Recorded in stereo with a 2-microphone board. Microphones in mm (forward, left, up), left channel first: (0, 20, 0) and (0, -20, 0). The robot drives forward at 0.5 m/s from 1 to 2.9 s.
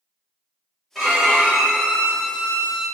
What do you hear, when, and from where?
0.9 s a violin: centre (ahead or behind), 0.9 m